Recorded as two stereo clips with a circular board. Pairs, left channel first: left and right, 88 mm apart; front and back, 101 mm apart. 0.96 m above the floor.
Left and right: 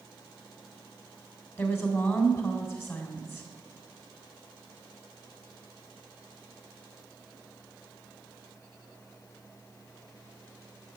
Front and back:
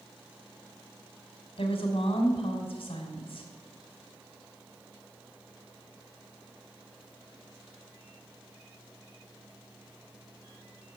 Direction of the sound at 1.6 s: 30° left.